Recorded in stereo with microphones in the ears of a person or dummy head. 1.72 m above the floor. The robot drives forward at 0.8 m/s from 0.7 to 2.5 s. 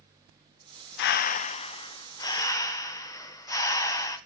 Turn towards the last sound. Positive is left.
turn(degrees=20)  # may be behind; listen again after turning